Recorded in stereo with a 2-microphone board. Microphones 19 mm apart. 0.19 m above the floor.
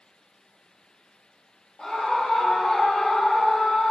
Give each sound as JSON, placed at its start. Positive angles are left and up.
{"t": 1.8, "sound": "a scream", "side_deg": 60, "distance_m": 3.0}